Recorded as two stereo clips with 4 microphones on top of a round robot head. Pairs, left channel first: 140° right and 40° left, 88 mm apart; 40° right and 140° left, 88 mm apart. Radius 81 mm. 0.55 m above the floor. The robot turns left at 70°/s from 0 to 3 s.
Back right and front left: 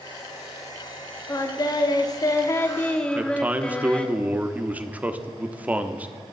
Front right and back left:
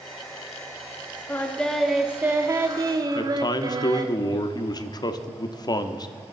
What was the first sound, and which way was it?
Singing, 95° right.